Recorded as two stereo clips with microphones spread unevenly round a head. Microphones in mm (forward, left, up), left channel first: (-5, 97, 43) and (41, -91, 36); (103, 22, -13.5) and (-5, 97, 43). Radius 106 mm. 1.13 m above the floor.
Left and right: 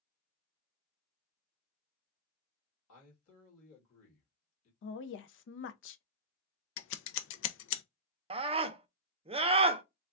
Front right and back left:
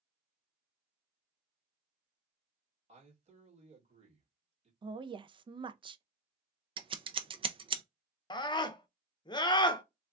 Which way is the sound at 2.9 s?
110° left.